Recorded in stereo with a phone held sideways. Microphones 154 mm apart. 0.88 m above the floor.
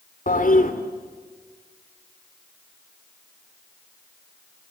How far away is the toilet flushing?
About 2.5 m.